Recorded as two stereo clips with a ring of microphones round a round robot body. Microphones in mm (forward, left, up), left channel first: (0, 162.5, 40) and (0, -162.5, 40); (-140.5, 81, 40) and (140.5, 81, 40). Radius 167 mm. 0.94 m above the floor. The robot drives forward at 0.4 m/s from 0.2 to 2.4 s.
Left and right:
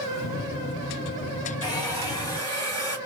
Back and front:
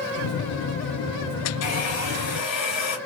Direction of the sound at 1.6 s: 165° left.